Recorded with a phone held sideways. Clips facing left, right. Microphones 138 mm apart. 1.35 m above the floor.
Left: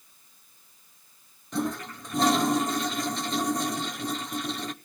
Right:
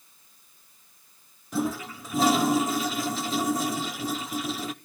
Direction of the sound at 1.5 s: 5° right (ahead or behind).